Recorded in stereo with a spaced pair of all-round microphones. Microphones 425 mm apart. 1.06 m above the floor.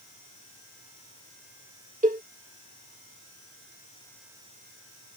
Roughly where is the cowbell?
Centre.